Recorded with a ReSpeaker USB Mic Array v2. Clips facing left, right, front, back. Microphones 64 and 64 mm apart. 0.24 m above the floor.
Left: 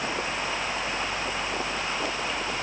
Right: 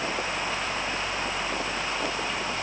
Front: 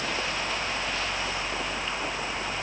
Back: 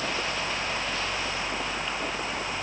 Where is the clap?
I don't hear a clap.